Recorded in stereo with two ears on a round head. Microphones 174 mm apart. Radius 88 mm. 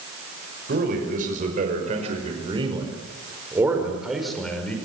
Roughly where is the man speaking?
Right.